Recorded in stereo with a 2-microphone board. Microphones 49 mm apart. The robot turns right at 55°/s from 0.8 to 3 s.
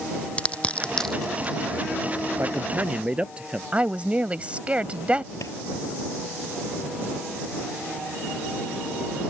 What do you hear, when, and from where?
0.4 s crushing: 20° left (ahead or behind); by 2.1 s 50° right (ahead or behind)
2.4 s a man speaking: 55° right; by 3.6 s 20° right
3.7 s a woman speaking: 25° right (ahead or behind)
5.4 s a clap: 75° left (ahead or behind)